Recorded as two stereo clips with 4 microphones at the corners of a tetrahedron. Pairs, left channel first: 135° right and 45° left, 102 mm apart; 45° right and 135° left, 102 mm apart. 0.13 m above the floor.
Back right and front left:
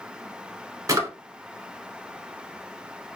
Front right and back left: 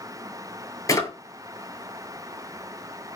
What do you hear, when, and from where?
0.9 s a drawer: straight ahead, 0.7 m